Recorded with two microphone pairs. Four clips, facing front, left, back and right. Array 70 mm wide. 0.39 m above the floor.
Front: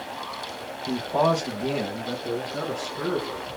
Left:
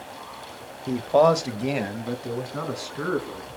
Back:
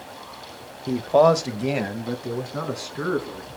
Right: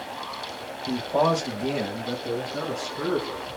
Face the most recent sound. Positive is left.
turn(degrees=145)